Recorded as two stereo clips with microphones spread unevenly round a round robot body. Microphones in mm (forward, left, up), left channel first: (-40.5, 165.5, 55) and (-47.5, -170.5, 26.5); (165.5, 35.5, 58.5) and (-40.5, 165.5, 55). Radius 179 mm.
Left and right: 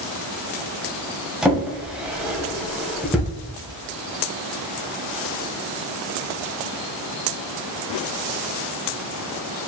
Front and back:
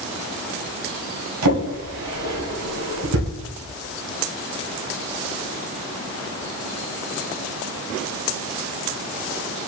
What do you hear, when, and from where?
1.4 s a drawer: straight behind, 1.0 m